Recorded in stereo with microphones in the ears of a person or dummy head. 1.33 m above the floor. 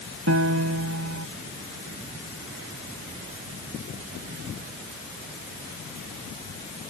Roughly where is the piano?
Right.